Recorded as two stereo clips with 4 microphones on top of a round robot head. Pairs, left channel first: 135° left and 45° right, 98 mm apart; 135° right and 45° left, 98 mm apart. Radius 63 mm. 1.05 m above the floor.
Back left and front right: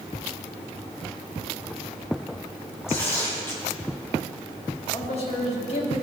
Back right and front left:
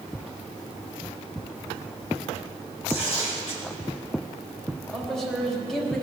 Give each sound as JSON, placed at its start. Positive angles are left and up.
{"t": 2.9, "sound": "tearing paper", "azimuth_deg": -160, "distance_m": 2.5}
{"t": 4.9, "sound": "a man speaking", "azimuth_deg": 140, "distance_m": 2.5}